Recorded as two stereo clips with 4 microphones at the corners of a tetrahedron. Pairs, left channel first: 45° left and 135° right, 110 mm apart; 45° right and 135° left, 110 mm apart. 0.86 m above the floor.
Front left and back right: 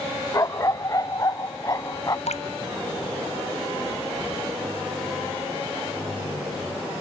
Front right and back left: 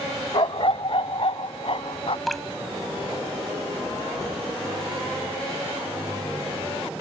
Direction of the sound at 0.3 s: 10° right.